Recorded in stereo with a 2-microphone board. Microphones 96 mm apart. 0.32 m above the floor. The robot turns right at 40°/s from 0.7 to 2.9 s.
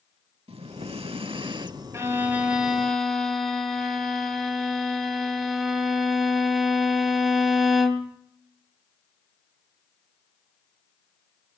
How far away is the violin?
About 2 m.